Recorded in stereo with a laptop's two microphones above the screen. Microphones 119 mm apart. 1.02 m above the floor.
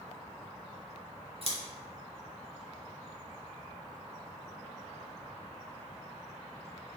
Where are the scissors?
50° right (ahead or behind), 0.7 m.